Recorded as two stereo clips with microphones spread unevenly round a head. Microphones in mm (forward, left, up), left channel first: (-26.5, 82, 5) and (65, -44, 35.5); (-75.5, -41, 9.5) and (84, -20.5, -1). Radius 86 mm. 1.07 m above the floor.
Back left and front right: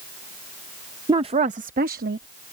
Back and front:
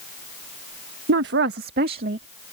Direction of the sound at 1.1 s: 15° left.